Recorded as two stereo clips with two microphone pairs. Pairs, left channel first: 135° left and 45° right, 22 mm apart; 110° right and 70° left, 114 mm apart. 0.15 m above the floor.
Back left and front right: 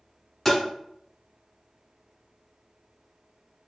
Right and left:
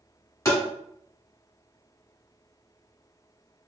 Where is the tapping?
140° right, 1.5 m.